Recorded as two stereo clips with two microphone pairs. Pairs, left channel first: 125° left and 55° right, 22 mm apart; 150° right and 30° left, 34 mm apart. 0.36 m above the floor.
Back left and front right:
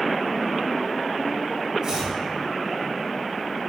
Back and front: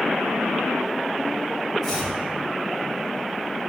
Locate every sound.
1.8 s chopping: 70° right, 1.3 m